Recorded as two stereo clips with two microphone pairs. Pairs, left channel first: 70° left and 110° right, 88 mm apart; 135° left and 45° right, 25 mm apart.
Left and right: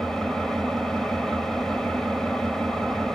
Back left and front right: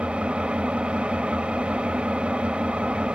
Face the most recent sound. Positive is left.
turn(degrees=-15)